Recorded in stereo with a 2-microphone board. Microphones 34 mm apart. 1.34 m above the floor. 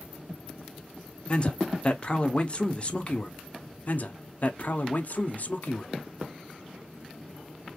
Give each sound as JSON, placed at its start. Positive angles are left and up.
{"t": 1.3, "sound": "a man speaking", "side_deg": 35, "distance_m": 0.8}
{"t": 3.9, "sound": "a man speaking", "side_deg": 50, "distance_m": 0.7}